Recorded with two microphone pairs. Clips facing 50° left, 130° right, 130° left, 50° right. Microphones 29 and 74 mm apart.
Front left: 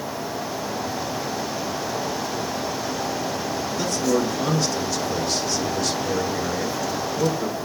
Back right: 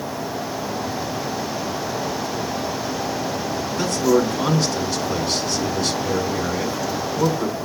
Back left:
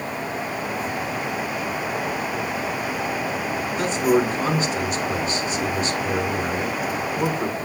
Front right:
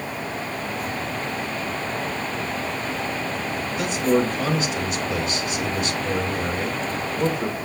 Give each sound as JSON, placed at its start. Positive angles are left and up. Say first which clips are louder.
{"t": 3.8, "sound": "a man speaking", "louder": "back right 5 dB, back left 1 dB", "azimuth_deg": 180, "distance_m": 3.0}